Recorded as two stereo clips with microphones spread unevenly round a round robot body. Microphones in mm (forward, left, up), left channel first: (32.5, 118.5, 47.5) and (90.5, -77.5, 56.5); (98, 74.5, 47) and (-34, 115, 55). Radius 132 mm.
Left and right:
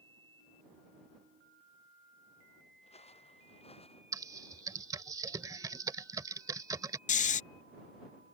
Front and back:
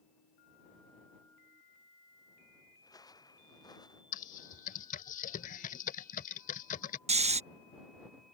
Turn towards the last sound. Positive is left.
turn(degrees=145)